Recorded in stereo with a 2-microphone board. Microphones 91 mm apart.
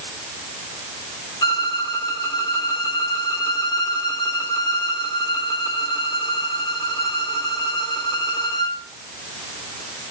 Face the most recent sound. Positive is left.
turn(degrees=45)  # may be behind; listen again after turning